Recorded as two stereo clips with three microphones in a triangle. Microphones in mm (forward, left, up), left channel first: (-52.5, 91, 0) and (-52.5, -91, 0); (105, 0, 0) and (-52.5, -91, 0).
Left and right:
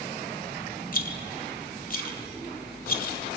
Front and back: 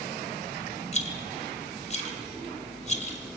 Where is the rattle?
70° left, 1.9 m.